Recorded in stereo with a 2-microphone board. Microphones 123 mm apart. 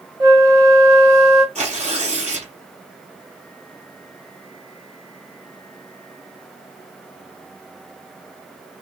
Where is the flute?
30° right (ahead or behind), 1.7 m.